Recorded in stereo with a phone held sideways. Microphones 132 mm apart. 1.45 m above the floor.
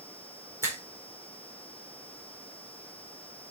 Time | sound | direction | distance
0.6 | a finger snap | 20° right (ahead or behind) | 4 m